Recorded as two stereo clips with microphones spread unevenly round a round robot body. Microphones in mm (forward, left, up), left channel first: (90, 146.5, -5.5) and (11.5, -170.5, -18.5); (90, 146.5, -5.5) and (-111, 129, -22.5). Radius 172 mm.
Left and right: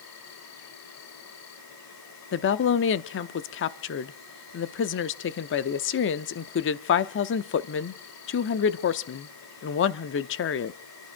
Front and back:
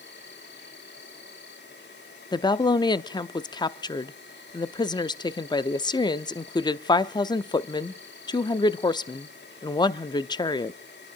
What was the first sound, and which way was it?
An insect, 35° left.